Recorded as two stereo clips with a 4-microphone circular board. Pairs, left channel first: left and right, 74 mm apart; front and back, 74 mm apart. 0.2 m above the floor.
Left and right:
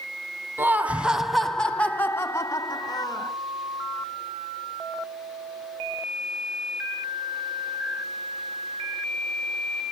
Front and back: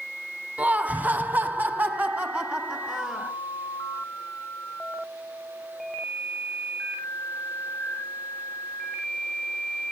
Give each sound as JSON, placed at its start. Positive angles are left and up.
{"t": 0.6, "sound": "laughter", "azimuth_deg": -125, "distance_m": 1.1}